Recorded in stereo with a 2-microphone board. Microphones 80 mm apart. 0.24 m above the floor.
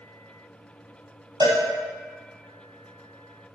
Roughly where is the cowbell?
Right.